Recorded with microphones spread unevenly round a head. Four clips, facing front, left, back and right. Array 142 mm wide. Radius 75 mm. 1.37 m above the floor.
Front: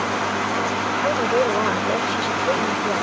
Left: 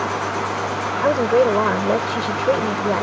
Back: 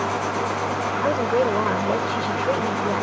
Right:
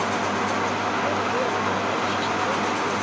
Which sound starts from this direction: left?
A woman speaking, at 1.0 s.